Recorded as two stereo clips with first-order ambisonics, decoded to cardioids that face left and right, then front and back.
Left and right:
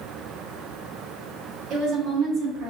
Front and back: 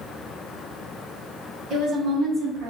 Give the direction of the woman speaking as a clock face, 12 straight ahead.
4 o'clock.